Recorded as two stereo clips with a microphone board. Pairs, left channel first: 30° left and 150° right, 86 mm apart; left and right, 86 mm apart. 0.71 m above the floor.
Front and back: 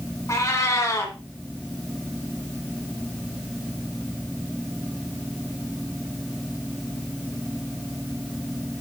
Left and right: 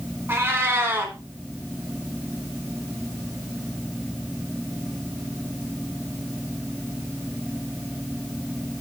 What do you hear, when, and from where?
0.3 s a cat meowing: 25° right, 1.9 m